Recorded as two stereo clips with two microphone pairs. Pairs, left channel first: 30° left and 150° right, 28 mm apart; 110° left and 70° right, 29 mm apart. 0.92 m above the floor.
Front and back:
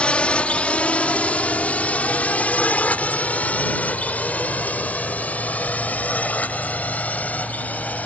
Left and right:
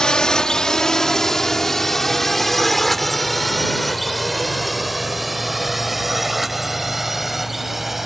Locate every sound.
0.0 s a drone: 55° left; by 8.1 s 15° left